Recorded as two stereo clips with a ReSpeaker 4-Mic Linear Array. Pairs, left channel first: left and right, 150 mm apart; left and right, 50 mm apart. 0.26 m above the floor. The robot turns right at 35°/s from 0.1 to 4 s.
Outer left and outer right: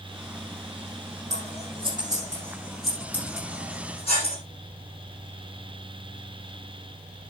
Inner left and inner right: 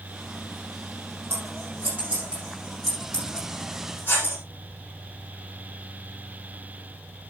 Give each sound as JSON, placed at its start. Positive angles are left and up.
{"t": 1.3, "sound": "scissors", "side_deg": -50, "distance_m": 8.5}